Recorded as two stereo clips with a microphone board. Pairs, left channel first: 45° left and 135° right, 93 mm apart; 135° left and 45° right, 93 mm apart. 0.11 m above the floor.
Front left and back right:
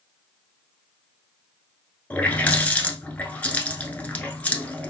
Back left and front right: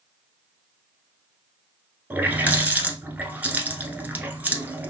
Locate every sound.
2.1 s a running tap: 5° right, 0.9 m